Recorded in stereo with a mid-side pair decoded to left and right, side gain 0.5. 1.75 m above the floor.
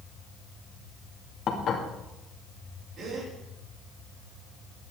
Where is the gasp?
60° right, 6 m.